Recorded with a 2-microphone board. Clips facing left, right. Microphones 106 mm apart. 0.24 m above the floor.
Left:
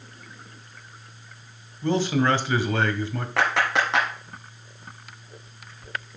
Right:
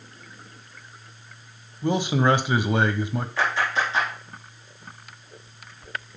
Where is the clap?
65° left (ahead or behind), 3 m.